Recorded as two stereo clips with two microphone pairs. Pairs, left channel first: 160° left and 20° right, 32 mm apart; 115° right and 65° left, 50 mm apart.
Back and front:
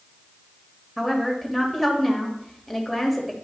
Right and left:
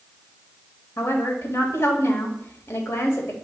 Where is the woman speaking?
110° right, 1.5 m.